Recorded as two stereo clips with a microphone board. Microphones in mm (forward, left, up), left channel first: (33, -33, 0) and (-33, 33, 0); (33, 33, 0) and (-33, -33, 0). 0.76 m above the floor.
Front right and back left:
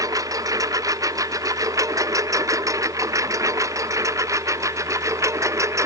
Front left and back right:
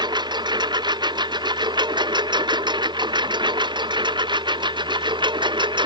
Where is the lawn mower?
175° right; by 5.9 s 165° right.